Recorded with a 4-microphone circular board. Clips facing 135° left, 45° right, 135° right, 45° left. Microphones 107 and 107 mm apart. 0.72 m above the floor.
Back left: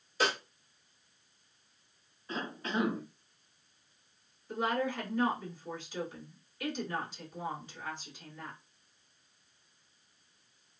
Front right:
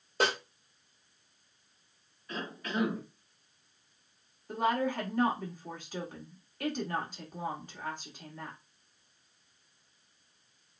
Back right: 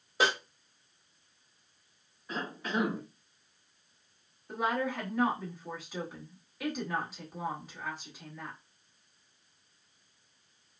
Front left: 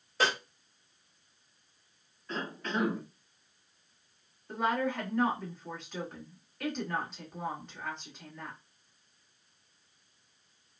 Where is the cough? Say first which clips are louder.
Back left 1 dB, even; 155° left, 1.0 m.